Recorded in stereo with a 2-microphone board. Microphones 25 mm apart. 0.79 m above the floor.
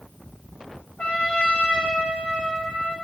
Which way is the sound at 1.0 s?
70° left (ahead or behind).